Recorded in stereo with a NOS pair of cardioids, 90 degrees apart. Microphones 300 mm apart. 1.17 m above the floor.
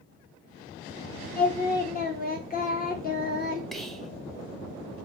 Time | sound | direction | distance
1.4 | singing | 30° left | 0.7 m
3.7 | whispering | straight ahead | 0.7 m